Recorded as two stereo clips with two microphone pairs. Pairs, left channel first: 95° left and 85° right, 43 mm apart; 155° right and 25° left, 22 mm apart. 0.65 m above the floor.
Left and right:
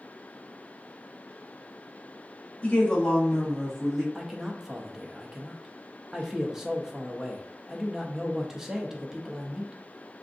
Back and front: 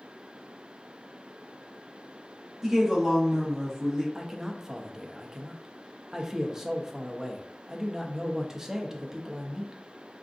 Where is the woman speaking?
90° left, 1.1 m; by 4.0 s 25° right, 1.0 m.